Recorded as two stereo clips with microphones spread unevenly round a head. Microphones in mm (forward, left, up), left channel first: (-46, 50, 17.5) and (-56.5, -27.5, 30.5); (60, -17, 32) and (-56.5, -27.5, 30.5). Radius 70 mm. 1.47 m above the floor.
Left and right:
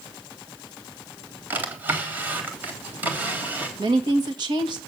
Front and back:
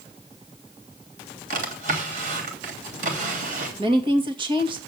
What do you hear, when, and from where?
1.5 s a drawer: 160° right, 3 m
3.8 s a woman speaking: 125° right, 2 m